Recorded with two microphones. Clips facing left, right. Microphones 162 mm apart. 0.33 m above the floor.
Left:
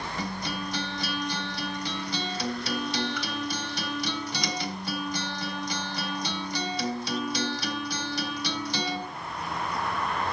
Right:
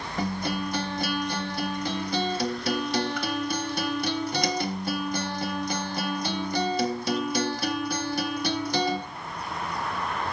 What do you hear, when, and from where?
0.2 s a guitar: 50° right (ahead or behind), 0.9 m